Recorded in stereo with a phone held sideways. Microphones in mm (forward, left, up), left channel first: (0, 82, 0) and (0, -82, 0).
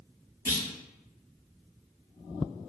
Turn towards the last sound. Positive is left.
turn(degrees=80)